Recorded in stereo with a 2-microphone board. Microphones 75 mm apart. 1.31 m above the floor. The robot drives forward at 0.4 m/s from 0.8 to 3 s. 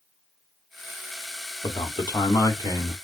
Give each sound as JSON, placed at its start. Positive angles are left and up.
{"t": 1.6, "sound": "a man speaking", "side_deg": 80, "distance_m": 1.3}